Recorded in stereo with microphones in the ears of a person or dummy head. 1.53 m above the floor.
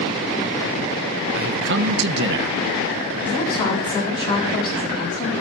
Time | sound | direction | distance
1.4 | a man speaking | 60° right (ahead or behind) | 1.3 m
3.3 | a woman speaking | 25° left (ahead or behind) | 4 m